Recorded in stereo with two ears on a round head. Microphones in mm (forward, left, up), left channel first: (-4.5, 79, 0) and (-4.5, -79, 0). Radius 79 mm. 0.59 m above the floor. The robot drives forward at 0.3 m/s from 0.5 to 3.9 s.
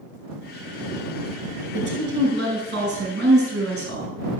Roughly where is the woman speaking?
Right.